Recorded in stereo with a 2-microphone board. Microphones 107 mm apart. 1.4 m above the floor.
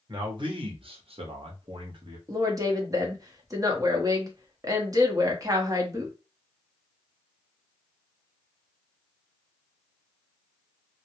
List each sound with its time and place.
0.1 s a man speaking: 45° right (ahead or behind), 1.1 m
2.3 s a woman speaking: 35° right (ahead or behind), 0.8 m